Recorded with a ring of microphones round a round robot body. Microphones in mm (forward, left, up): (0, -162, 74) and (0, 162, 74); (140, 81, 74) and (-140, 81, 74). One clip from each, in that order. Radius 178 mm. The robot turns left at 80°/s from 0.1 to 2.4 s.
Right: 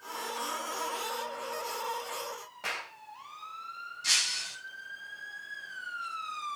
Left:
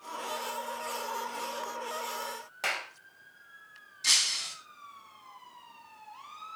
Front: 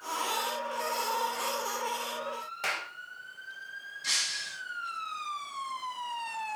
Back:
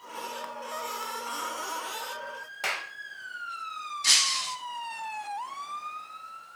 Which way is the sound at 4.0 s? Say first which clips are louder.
Left 2 dB, back 7 dB; 155° left.